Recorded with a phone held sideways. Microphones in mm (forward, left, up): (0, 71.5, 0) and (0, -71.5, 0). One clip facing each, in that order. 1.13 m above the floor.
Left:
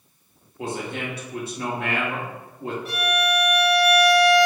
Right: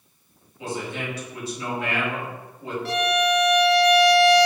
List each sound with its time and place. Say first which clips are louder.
0.6 s a man speaking: left 1 dB; 55° left (ahead or behind), 1.6 m
2.9 s a violin: right 4 dB; 80° right, 1.2 m